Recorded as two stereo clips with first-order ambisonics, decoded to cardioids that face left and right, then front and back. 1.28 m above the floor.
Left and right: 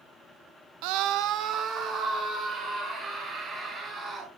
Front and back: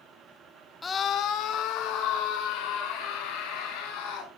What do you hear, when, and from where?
0.8 s a scream: 80° right, 0.5 m; by 4.3 s 20° right, 3.5 m